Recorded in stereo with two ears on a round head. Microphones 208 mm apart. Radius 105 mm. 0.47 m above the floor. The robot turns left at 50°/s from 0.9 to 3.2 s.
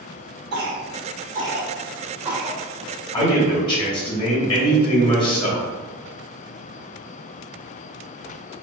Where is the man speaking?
20° left (ahead or behind), 1.3 m; by 5.7 s 25° left (ahead or behind), 1.3 m.